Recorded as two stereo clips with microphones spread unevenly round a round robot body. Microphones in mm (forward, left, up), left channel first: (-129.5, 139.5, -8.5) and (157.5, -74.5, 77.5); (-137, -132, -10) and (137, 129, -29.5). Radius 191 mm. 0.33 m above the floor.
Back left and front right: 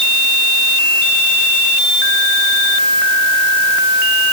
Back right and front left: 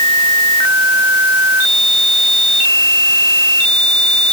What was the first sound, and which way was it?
Only background noise.